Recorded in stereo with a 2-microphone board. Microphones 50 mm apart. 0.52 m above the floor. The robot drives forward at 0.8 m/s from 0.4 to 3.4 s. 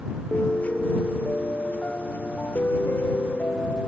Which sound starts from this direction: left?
A piano, at 0.3 s.